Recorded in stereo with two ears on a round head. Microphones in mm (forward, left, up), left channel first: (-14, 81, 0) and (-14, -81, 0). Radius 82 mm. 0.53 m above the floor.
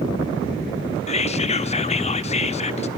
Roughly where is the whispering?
Left.